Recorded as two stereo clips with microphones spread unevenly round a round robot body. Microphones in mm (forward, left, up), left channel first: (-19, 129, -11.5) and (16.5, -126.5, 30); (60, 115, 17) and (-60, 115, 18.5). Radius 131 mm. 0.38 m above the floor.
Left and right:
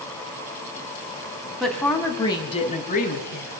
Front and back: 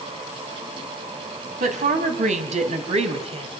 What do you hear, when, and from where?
1.6 s a woman speaking: 175° right, 3 m; by 3.5 s 145° left, 3 m